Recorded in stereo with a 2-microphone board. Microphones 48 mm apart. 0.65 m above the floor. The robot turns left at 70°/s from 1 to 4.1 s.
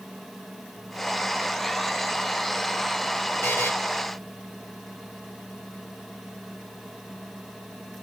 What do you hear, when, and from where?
3.4 s a buzzer: 65° left (ahead or behind), 2.5 m